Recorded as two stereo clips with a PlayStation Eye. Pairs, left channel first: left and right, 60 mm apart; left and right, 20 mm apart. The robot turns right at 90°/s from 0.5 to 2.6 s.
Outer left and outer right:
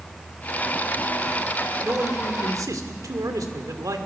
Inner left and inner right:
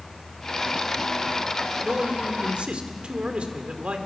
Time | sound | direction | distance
1.8 | a man speaking | 140° right | 2 m